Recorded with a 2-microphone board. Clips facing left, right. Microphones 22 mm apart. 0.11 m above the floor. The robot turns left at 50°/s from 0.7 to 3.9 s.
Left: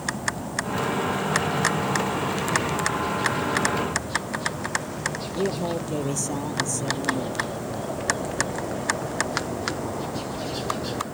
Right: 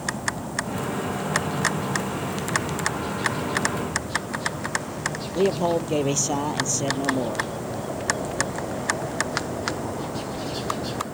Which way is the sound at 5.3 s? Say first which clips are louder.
Right 7 dB; 45° right (ahead or behind).